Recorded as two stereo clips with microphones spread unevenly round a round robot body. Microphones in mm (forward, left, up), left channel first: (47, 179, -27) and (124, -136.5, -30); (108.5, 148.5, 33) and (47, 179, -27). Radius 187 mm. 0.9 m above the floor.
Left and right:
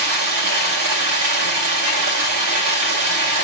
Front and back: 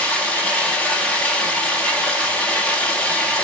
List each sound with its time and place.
0.0 s running water: 120° right, 3 m